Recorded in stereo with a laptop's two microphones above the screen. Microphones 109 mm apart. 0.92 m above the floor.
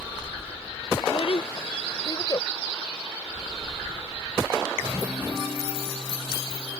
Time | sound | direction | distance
1.0 | a child speaking | 65° left (ahead or behind) | ?